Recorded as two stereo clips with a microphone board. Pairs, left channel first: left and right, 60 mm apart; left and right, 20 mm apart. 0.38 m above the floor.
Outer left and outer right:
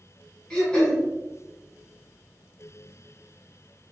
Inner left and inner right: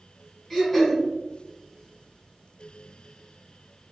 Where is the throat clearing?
15° left (ahead or behind), 2 m.